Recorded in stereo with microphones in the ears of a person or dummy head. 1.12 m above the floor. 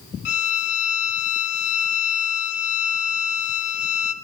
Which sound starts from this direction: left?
A violin, at 0.2 s.